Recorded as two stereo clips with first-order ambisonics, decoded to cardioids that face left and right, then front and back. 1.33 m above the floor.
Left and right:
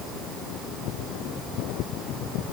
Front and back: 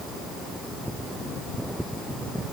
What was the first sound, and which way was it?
Only background noise.